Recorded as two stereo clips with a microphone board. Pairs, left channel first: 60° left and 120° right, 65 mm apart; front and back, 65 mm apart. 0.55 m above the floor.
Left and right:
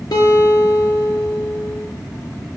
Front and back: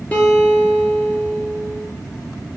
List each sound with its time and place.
0.1 s a guitar: 65° left, 1.5 m